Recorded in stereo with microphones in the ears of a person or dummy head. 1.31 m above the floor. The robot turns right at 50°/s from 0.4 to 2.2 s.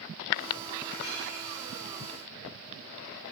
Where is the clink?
55° left (ahead or behind), 2 m; by 1.2 s 70° left (ahead or behind), 2 m.